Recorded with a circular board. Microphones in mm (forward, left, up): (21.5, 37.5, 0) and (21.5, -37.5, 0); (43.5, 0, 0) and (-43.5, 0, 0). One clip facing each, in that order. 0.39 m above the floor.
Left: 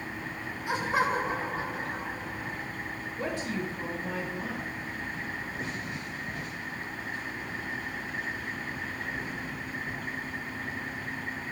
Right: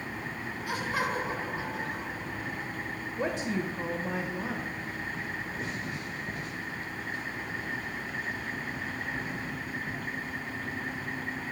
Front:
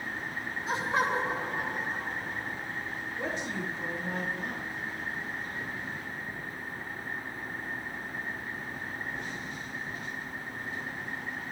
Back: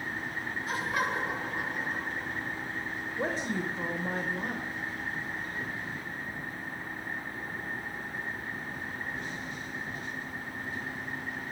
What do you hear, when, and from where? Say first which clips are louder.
0.7 s laughter: left 4 dB, front 3 dB; 45° left, 0.9 m; by 2.6 s 40° left, 2 m
3.2 s a woman speaking: right 2 dB, back 3 dB; 150° right, 1.2 m